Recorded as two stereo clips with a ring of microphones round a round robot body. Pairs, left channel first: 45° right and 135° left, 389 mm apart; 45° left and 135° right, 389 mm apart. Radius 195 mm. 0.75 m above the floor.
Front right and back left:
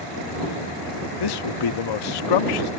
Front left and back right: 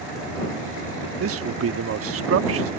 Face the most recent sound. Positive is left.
turn(degrees=-75)